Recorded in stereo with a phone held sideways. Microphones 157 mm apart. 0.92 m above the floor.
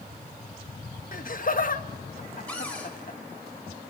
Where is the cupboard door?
10° left (ahead or behind), 4.5 m.